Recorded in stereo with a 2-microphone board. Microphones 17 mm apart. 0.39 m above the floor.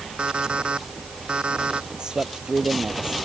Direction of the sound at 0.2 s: 85° right.